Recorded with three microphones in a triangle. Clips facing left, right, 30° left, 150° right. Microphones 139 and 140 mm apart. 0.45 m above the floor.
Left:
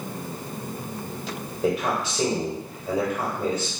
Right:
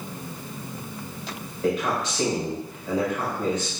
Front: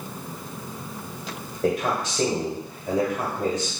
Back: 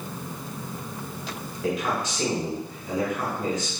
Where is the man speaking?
35° left, 1.3 m.